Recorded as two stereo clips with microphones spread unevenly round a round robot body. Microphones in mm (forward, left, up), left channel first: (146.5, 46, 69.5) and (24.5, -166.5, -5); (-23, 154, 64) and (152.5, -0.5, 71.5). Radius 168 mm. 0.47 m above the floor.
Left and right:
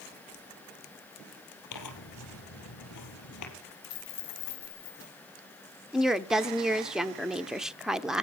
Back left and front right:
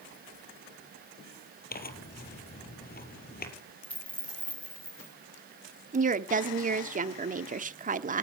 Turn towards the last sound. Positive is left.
turn(degrees=-60)